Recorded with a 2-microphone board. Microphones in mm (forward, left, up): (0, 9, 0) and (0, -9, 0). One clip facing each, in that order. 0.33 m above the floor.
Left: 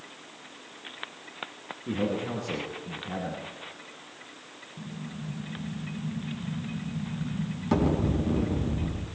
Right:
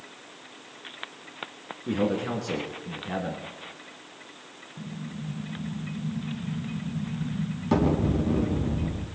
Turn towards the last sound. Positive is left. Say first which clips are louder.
# right 2 dB
turn(degrees=-5)  # may be behind; listen again after turning